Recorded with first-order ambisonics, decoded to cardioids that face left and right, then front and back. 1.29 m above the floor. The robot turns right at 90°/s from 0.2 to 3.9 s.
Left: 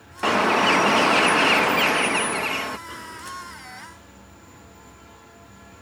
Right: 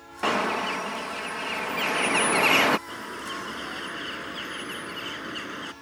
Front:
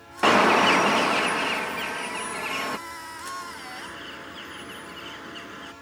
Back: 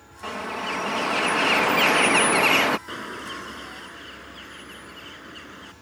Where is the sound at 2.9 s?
175° right; by 5.7 s 85° right.